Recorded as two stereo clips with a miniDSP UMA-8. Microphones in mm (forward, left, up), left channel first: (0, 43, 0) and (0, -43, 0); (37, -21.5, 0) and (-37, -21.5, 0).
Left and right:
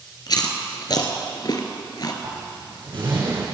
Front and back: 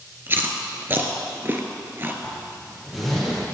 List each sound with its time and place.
0.3 s chewing: 120° left, 1.5 m
2.2 s a zipper: 90° right, 5.5 m